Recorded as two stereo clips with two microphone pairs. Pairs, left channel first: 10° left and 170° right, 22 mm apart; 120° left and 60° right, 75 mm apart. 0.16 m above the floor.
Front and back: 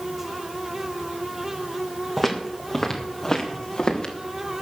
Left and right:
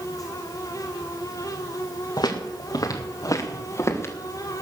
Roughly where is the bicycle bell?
I don't hear a bicycle bell.